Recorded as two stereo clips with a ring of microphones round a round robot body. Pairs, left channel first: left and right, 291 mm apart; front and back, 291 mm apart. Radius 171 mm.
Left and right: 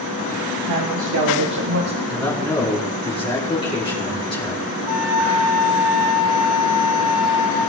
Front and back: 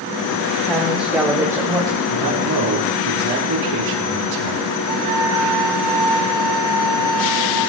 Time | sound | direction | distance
0.7 | a woman speaking | 90° right | 4 m
2.1 | a man speaking | 160° left | 4.5 m
4.9 | a flute | 110° right | 5 m